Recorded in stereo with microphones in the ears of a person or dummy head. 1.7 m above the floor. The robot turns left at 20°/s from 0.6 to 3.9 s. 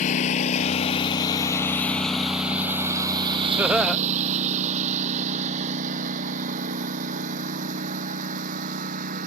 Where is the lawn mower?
40° left (ahead or behind); by 9.3 s 40° right (ahead or behind).